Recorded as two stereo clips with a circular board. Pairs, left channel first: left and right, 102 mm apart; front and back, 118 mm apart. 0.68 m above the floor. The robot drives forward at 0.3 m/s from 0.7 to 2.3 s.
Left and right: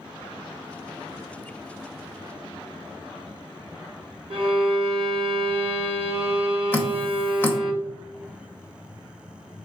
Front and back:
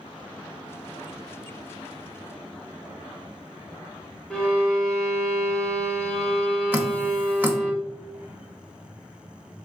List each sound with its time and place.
4.3 s a violin: 80° right, 0.9 m
6.7 s dripping: 130° left, 0.7 m